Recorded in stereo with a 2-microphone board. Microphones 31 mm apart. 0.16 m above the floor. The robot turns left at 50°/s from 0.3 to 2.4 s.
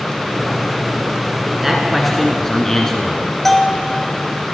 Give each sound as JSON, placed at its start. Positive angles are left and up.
{"t": 1.6, "sound": "a man speaking", "azimuth_deg": -165, "distance_m": 1.7}
{"t": 3.5, "sound": "a bell", "side_deg": 10, "distance_m": 1.1}